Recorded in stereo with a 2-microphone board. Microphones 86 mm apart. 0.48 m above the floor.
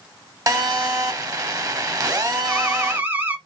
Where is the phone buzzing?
40° right (ahead or behind), 1.4 m.